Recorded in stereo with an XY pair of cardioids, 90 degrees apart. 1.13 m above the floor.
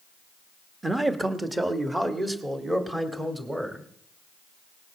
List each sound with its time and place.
0.8 s a man speaking: 20° right, 1.3 m